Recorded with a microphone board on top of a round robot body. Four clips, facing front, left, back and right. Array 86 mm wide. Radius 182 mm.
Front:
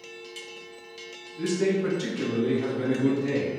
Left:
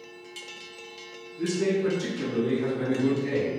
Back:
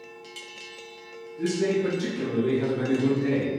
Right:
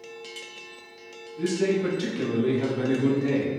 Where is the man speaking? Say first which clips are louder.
Right 1 dB, even; 45° right, 1.6 m; by 3.5 s 145° right, 2 m.